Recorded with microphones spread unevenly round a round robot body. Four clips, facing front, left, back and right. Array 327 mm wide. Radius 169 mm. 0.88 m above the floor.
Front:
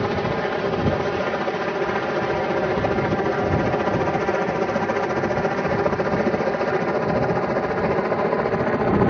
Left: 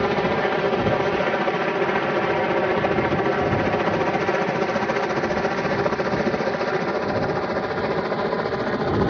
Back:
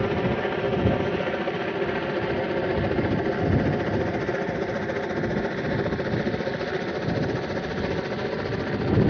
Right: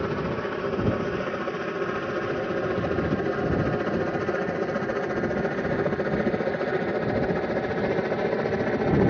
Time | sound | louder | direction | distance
0.0 | a helicopter | left 7 dB, front 2 dB | 95° left | ?